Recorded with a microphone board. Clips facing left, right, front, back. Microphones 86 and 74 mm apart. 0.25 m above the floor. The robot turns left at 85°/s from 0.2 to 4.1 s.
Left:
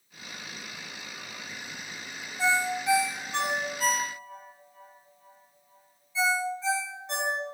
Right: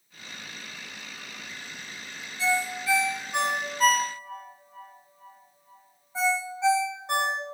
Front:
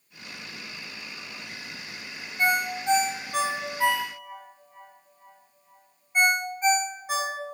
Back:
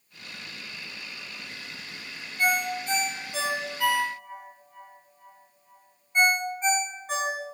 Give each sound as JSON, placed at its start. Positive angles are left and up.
{"t": 2.4, "sound": "a ringtone", "azimuth_deg": 65, "distance_m": 0.7}